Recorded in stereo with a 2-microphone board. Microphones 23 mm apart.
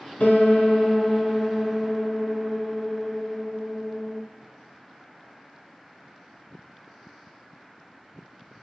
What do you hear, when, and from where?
0.2 s a piano: 75° left (ahead or behind), 1.2 m